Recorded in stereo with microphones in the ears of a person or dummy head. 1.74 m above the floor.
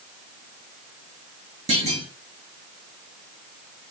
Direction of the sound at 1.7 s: 35° right (ahead or behind).